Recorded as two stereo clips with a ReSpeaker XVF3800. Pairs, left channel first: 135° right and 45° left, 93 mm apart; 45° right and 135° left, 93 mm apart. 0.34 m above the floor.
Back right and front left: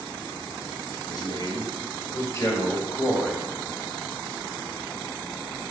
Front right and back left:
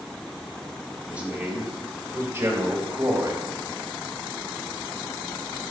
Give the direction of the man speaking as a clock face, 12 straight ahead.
5 o'clock.